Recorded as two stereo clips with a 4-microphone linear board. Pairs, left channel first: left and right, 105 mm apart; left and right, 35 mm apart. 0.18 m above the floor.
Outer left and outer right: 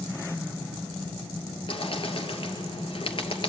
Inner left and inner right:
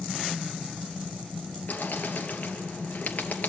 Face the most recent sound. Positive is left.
turn(degrees=55)  # may be behind; listen again after turning